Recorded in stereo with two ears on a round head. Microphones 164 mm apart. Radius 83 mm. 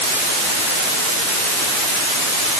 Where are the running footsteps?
I don't hear running footsteps.